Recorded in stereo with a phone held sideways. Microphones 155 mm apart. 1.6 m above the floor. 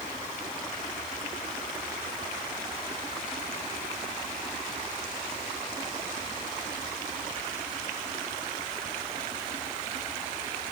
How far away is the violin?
No violin in this recording.